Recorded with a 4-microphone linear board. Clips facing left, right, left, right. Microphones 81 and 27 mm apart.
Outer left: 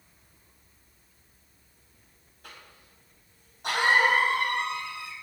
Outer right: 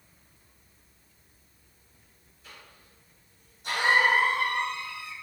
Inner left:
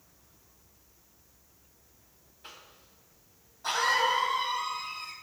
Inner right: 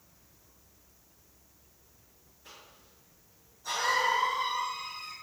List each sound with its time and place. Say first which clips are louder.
2.4 s a cough: outer left 2 dB, inner left 3 dB; 65° left (ahead or behind), 2.5 m